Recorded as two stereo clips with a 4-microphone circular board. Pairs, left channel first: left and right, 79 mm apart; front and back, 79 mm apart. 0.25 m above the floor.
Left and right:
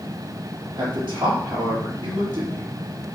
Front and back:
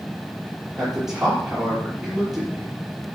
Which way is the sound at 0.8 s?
95° right.